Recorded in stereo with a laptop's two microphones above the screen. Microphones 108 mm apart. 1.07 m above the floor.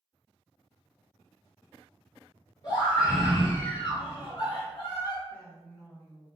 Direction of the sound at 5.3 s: 25° left (ahead or behind).